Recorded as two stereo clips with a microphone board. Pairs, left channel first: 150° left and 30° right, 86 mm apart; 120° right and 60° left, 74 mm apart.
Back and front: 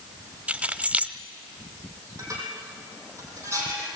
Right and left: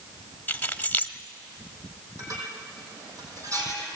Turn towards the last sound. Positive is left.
turn(degrees=20)